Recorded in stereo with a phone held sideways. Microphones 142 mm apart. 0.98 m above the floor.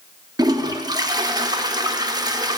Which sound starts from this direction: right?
A toilet flushing, at 0.4 s.